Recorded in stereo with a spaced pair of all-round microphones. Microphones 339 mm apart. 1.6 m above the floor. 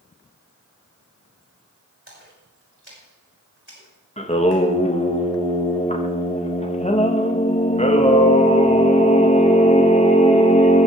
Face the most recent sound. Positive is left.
turn(degrees=20)  # may be behind; listen again after turning